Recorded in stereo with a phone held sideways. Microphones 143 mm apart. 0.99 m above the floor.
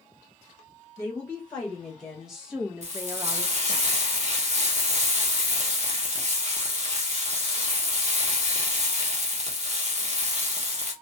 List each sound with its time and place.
1.0 s a woman speaking: 10° left (ahead or behind), 1.6 m; by 3.8 s 50° right (ahead or behind), 0.5 m
2.8 s frying: 50° right (ahead or behind), 0.8 m